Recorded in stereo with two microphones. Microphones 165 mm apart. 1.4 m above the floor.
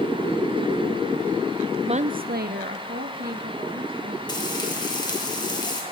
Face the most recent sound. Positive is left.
turn(degrees=25)  # may be behind; listen again after turning